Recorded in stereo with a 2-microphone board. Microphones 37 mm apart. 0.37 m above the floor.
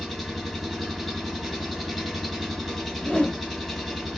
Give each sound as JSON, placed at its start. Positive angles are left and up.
{"t": 0.0, "sound": "an engine running", "side_deg": 5, "distance_m": 0.9}
{"t": 3.0, "sound": "a whoosh", "side_deg": 40, "distance_m": 0.8}